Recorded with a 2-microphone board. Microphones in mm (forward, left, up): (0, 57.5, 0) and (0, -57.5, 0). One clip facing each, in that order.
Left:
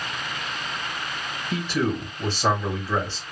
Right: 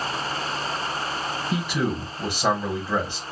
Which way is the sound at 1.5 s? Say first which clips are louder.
Left 2 dB; 10° right (ahead or behind).